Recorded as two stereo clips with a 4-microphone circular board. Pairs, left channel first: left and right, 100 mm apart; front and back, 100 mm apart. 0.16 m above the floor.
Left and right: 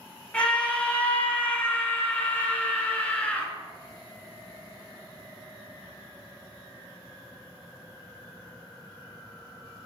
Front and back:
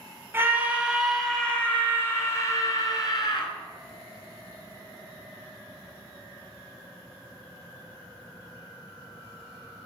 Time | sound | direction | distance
0.3 | a scream | 150° left | 1.1 m